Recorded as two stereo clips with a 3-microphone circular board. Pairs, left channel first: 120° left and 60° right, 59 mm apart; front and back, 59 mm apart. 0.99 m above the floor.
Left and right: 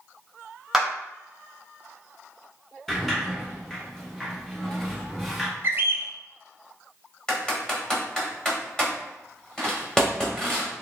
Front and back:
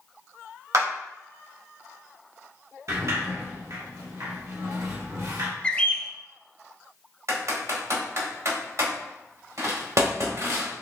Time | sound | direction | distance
0.7 | a clap | 150° right | 1.4 m
2.9 | a sliding door | 155° right | 1.0 m
5.6 | a bird | 55° right | 0.5 m
7.3 | typing on a keyboard | 160° right | 1.4 m